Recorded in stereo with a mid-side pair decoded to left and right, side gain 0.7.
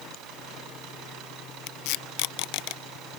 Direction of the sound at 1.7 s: 70° left.